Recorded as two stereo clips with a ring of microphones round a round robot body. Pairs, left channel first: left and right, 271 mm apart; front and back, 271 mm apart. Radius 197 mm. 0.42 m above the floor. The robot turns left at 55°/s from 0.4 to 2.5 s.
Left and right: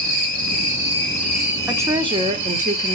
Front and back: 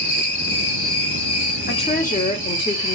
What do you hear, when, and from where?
0.0 s an insect: 55° left, 3 m; by 3.0 s 60° right, 3 m
1.7 s a woman speaking: 10° right, 1.1 m; by 3.0 s 55° right, 1.1 m